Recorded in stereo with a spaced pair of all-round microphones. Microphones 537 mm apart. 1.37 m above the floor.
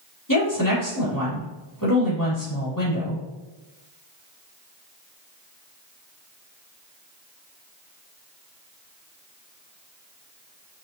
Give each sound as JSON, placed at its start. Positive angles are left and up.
{"t": 0.3, "sound": "a woman speaking", "side_deg": 35, "distance_m": 3.5}